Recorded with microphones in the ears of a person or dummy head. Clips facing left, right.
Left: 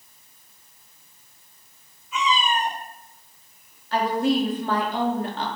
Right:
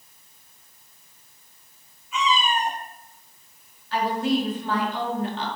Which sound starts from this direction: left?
A woman speaking, at 3.9 s.